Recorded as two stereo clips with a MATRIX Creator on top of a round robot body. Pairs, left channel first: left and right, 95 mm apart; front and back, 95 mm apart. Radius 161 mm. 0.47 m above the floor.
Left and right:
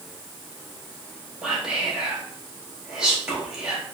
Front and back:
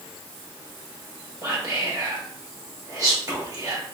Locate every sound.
1.4 s whispering: 165° right, 1.1 m